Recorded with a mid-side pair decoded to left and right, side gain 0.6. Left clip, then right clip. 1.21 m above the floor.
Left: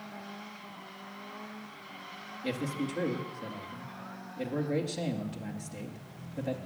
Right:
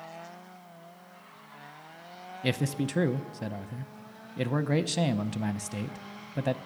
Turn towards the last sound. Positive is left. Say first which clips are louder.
# right 4 dB
turn(degrees=-60)